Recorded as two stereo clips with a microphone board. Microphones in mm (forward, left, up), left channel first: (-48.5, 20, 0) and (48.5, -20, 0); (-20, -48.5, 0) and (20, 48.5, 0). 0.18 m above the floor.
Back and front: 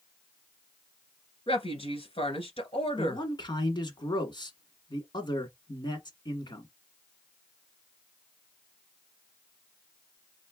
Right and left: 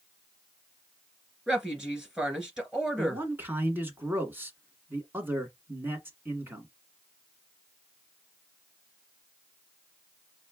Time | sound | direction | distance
1.5 | a woman speaking | 150° left | 2 m
3.0 | a man speaking | 130° left | 1.6 m